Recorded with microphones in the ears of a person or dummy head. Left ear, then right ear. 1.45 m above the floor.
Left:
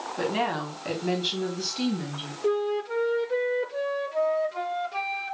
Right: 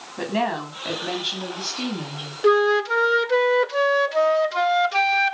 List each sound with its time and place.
0.2 s a woman speaking: 20° right (ahead or behind), 3.5 m; by 2.3 s centre (ahead or behind), 3 m
2.4 s a flute: 45° right (ahead or behind), 0.6 m